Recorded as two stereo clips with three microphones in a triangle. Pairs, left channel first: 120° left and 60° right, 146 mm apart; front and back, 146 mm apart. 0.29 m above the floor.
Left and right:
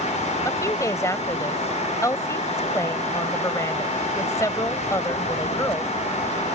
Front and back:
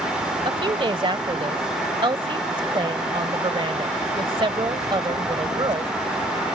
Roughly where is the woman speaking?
Behind.